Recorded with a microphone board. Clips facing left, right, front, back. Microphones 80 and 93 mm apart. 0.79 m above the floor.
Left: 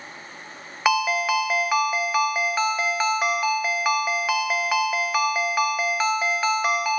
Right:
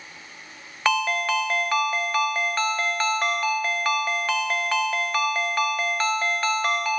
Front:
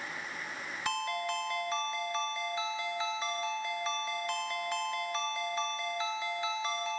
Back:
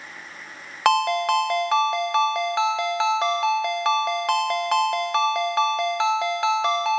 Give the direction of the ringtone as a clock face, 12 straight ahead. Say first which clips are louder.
Left 2 dB, back 15 dB; 6 o'clock.